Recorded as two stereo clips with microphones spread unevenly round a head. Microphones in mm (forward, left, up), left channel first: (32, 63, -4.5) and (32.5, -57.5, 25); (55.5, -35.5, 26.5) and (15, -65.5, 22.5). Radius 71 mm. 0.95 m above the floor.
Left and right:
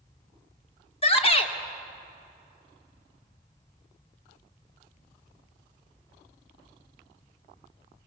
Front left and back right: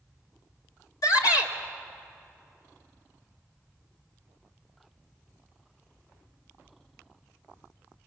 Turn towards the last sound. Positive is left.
turn(degrees=50)